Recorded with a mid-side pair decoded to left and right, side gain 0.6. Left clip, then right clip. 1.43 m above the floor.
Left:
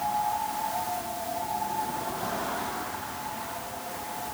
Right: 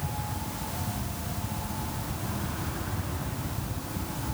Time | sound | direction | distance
0.0 | a fan | 70° right | ?